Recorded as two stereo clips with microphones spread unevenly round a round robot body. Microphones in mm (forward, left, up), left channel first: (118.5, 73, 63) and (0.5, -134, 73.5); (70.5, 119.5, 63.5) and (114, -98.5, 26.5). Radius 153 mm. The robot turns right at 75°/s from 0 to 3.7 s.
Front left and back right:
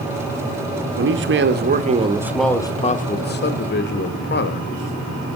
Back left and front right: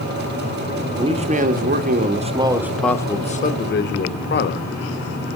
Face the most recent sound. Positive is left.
turn(degrees=70)